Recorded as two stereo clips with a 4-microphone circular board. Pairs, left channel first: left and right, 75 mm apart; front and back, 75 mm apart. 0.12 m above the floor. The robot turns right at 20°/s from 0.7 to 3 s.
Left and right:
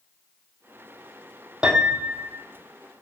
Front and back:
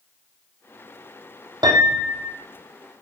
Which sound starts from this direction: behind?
A piano, at 1.6 s.